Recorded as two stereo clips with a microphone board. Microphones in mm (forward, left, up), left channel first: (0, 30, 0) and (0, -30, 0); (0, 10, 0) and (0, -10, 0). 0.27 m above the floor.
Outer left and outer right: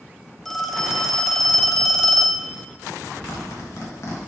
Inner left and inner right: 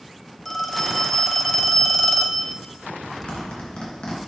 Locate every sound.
0.5 s a phone ringing: 5° left (ahead or behind), 0.8 m
3.3 s a zipper: 55° left (ahead or behind), 2.5 m